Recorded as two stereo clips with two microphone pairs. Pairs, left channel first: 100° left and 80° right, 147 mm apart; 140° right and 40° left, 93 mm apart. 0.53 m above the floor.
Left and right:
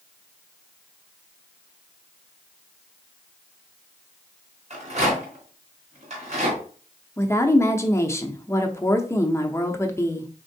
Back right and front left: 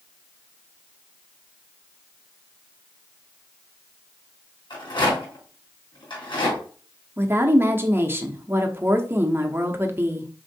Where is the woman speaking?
60° left, 0.7 m.